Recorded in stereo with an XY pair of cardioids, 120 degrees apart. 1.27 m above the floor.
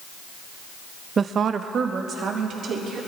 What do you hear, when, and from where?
1.2 s a woman speaking: 35° right, 0.5 m; by 3.0 s 55° right, 3 m